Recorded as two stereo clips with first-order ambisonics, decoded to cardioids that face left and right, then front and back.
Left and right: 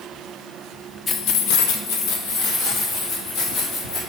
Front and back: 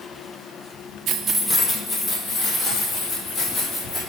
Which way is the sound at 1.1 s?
160° left.